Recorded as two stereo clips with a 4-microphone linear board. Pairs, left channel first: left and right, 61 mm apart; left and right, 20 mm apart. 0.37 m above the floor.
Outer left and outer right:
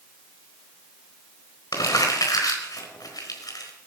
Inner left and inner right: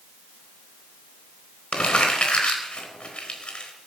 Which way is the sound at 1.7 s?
75° left (ahead or behind).